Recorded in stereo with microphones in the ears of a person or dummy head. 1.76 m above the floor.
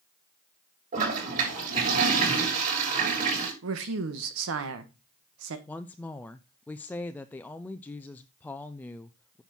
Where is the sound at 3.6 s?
65° right (ahead or behind), 1.7 m.